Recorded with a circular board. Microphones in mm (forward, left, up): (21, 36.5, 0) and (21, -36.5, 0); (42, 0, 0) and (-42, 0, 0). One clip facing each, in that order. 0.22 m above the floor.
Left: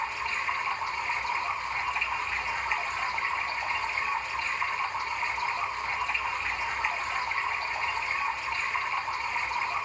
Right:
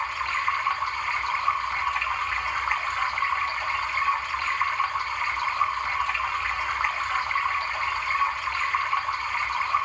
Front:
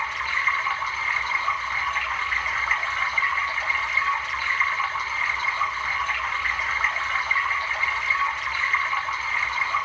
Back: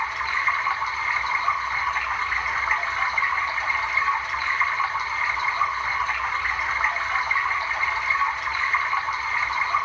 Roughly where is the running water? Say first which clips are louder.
Right 5 dB, back 1 dB; right.